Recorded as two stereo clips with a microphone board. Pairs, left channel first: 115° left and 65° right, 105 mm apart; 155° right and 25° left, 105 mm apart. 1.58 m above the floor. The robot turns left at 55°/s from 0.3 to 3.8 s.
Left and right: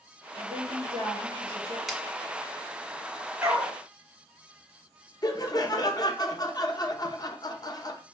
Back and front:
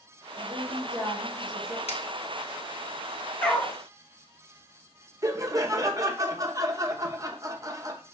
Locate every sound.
0.4 s a woman speaking: 10° right, 2 m; by 1.8 s 90° right, 2 m
1.9 s scissors: 155° right, 0.8 m; by 2.0 s 160° right, 0.8 m
3.4 s a dog barking: 100° right, 1.4 m; by 3.8 s 115° right, 1.4 m
5.2 s laughter: 70° left, 0.7 m